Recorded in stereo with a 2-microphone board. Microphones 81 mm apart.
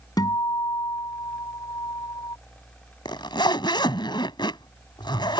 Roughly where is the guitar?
Left.